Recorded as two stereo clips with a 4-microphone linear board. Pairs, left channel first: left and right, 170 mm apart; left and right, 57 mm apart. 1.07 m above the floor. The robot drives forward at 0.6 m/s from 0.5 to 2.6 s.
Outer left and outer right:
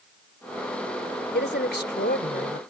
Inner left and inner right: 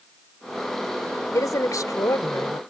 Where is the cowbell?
I don't hear a cowbell.